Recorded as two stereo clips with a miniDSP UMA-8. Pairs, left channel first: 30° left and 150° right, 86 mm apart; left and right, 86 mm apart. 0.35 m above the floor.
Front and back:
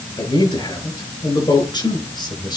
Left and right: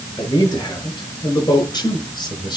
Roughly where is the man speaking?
Ahead left.